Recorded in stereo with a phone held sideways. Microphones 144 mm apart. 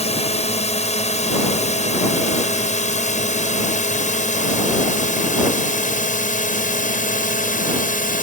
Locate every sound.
0.0 s a drone: 50° left (ahead or behind); by 8.2 s 70° left (ahead or behind)